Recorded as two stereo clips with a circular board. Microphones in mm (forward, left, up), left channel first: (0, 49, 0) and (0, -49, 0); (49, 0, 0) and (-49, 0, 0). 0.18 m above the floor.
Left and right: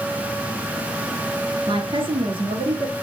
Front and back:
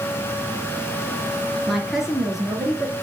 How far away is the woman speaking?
About 2.5 m.